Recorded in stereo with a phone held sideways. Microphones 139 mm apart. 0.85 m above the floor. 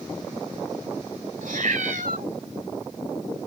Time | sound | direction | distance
1.4 | a cat meowing | 75° right (ahead or behind) | ?